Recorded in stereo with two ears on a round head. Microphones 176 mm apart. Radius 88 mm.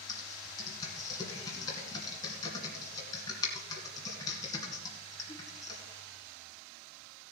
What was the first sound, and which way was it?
Typing on a keyboard, 20° left (ahead or behind).